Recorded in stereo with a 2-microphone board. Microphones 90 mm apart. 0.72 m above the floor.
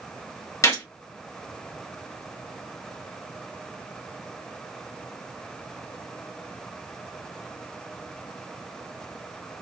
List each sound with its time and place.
0.6 s a gunshot: 35° left (ahead or behind), 1.1 m